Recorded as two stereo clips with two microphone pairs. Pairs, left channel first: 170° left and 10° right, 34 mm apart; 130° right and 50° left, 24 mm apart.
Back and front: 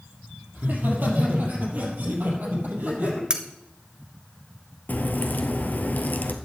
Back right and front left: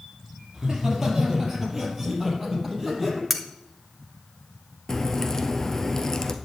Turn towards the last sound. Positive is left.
turn(degrees=170)